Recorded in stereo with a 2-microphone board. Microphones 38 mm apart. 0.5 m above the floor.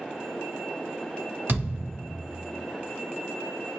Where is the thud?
65° right (ahead or behind), 1.1 m.